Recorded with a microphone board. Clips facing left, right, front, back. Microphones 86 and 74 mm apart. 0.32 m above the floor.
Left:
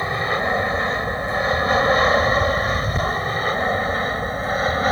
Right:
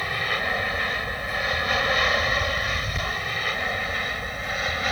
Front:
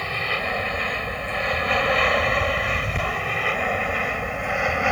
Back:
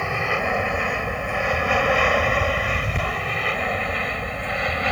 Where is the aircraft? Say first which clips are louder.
Left 5 dB, back 3 dB; 120° left; by 4.9 s 70° left.